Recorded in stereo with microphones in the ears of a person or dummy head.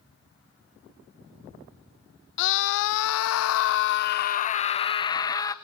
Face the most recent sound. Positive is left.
turn(degrees=15)  # may be behind; listen again after turning